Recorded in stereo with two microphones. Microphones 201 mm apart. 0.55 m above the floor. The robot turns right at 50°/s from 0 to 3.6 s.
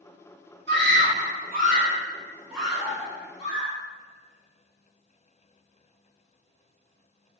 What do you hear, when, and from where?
0.7 s a scream: 60° right (ahead or behind), 1.3 m; by 3.7 s 40° left (ahead or behind), 1.3 m